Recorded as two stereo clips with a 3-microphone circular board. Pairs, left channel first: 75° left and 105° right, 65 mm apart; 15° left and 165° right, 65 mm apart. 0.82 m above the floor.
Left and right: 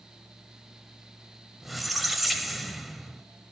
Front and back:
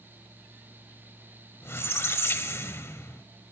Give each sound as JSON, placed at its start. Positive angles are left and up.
{"t": 1.6, "sound": "a squeak", "azimuth_deg": -15, "distance_m": 0.8}